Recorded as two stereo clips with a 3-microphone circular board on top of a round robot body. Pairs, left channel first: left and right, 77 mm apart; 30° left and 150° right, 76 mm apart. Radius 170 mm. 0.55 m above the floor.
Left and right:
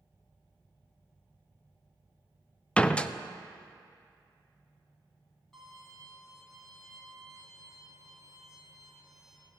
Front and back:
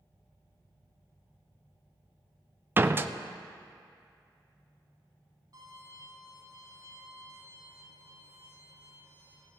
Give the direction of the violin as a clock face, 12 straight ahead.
6 o'clock.